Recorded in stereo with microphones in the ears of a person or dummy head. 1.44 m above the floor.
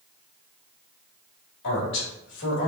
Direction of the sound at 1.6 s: 65° left (ahead or behind).